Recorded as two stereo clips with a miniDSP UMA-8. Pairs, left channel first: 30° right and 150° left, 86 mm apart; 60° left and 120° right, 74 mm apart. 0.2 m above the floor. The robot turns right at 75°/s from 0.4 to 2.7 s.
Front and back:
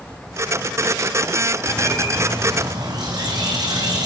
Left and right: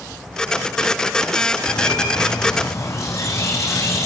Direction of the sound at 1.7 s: 30° left.